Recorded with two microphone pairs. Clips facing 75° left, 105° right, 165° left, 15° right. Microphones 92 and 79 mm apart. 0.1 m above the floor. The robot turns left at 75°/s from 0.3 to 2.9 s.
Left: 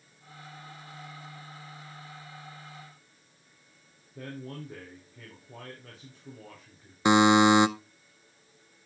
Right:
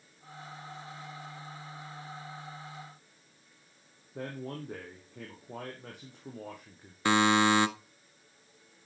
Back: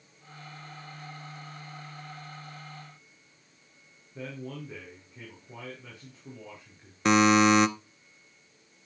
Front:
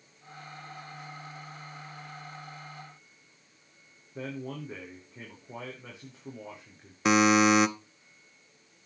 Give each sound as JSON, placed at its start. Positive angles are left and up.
{"t": 4.2, "sound": "a man speaking", "azimuth_deg": -80, "distance_m": 4.5}
{"t": 7.0, "sound": "a buzzer", "azimuth_deg": 65, "distance_m": 0.7}